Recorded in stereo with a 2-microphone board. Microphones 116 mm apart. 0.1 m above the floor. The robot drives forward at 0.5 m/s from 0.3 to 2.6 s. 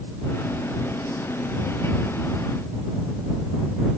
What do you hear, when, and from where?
Only background noise.